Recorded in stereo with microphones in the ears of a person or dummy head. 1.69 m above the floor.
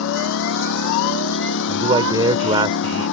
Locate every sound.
0.0 s a lawn mower: 80° left; by 3.1 s 70° left (ahead or behind)
1.7 s a man speaking: 25° right (ahead or behind)